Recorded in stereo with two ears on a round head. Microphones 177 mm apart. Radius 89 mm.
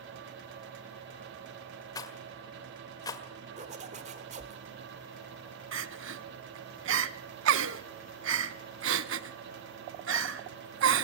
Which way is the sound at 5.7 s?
65° right (ahead or behind).